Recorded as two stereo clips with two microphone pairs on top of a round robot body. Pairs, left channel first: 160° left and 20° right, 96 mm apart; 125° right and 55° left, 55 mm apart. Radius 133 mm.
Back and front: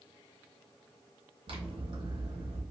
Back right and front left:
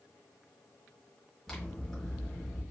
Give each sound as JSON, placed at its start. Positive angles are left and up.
{"t": 1.5, "sound": "scissors", "azimuth_deg": -45, "distance_m": 1.4}